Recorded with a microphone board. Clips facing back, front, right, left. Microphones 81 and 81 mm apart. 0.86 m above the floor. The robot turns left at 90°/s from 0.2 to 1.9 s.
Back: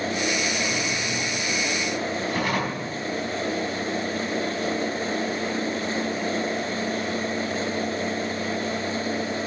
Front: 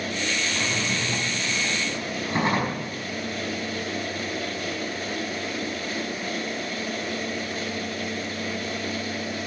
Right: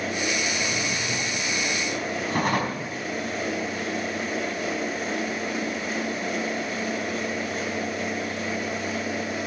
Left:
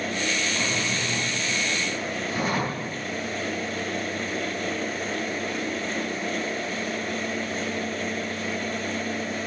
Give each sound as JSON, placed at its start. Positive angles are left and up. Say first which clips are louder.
{"t": 0.5, "sound": "a drawer", "louder": "back 1 dB, even", "azimuth_deg": 65, "distance_m": 4.5}